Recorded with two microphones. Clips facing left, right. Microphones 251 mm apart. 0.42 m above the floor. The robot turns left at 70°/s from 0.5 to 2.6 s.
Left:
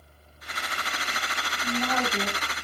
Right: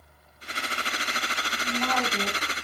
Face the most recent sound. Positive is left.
turn(degrees=-20)